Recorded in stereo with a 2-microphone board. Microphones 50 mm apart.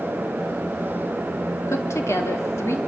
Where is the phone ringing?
No phone ringing in this recording.